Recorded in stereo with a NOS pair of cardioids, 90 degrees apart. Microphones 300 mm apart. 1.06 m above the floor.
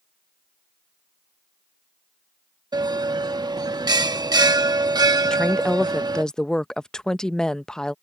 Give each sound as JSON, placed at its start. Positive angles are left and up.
{"t": 2.7, "sound": "a bell", "azimuth_deg": -15}
{"t": 5.2, "sound": "a woman speaking", "azimuth_deg": 0}